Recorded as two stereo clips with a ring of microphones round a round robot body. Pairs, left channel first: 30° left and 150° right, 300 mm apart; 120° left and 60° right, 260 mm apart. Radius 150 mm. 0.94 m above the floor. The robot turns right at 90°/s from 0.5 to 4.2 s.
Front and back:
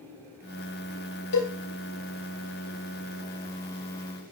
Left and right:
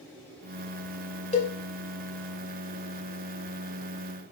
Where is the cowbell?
55° left, 1.7 m; by 1.5 s 70° left, 1.7 m.